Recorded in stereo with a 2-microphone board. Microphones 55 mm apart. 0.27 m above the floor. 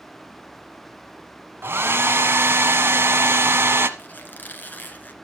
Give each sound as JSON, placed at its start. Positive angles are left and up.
{"t": 1.6, "sound": "a hair dryer", "side_deg": -45, "distance_m": 1.1}
{"t": 4.0, "sound": "a squeak", "side_deg": 35, "distance_m": 1.4}